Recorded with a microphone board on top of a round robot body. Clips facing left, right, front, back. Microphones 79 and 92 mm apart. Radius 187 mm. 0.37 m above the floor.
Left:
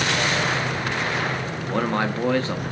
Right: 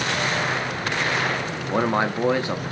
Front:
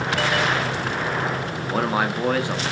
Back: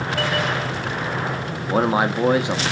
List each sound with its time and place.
1.7 s a man speaking: 140° right, 0.8 m